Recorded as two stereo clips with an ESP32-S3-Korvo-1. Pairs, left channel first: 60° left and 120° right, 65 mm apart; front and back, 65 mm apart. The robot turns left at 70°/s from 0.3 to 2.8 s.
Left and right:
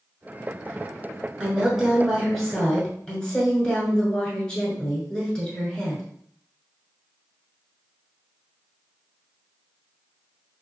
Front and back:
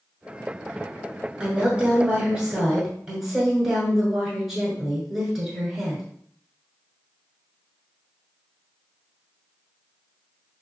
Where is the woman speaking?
155° right, 1.2 m; by 6.0 s 110° left, 1.2 m.